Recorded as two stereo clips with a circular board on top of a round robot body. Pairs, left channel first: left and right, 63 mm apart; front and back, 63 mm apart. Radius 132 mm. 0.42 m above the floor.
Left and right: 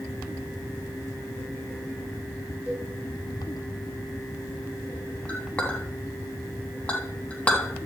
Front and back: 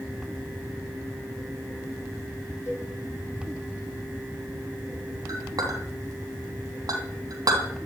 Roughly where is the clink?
Behind.